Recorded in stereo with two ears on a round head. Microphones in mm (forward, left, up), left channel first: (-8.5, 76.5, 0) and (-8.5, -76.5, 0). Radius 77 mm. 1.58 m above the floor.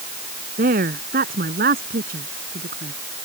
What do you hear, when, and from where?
0.6 s a woman speaking: 50° right (ahead or behind); by 2.9 s 55° right (ahead or behind)